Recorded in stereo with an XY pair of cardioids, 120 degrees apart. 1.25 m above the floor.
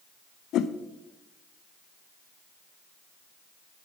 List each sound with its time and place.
0.5 s a whoosh: 70° left, 0.7 m